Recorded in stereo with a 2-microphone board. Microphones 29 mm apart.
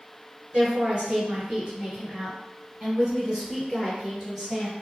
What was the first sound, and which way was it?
A woman speaking, 30° right (ahead or behind).